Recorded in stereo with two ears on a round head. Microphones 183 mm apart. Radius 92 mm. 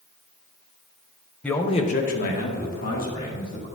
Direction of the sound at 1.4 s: 5° left (ahead or behind).